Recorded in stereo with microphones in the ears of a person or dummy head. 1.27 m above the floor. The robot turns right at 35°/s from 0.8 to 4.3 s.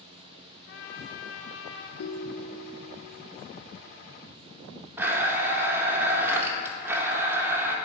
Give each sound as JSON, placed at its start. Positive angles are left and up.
{"t": 0.7, "sound": "a trumpet", "azimuth_deg": 75, "distance_m": 0.6}
{"t": 2.0, "sound": "a ringtone", "azimuth_deg": 60, "distance_m": 0.6}
{"t": 5.0, "sound": "a blender", "side_deg": -15, "distance_m": 0.8}